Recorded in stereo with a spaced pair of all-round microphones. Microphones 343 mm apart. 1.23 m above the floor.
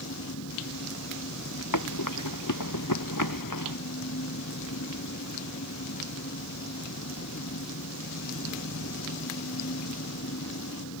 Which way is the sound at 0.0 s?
45° left (ahead or behind).